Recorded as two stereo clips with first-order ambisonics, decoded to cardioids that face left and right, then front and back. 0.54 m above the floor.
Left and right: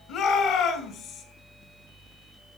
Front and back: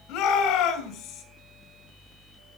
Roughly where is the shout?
Ahead left.